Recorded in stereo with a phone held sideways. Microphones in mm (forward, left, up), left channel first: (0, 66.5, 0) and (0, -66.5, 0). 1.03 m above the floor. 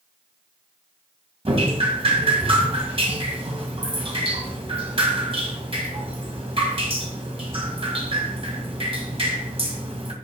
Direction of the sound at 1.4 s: 45° right (ahead or behind).